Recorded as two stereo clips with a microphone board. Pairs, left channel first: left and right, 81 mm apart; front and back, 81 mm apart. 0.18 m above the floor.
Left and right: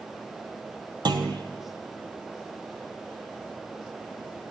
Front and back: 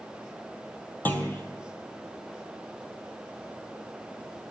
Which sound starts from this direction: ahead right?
A clunk, at 1.1 s.